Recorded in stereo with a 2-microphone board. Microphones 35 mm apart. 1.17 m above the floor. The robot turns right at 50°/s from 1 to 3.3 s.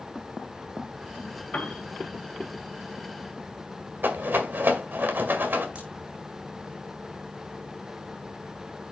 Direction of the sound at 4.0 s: 65° right (ahead or behind).